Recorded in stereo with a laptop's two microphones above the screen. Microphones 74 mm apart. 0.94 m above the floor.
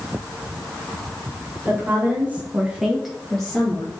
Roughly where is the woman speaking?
Right.